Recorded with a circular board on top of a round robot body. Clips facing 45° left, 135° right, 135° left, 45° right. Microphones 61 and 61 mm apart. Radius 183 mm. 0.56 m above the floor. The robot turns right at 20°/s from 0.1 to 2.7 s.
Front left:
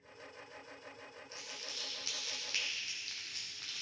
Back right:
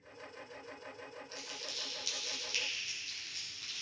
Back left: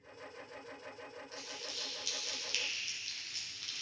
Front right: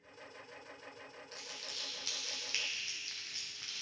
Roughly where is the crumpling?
Ahead.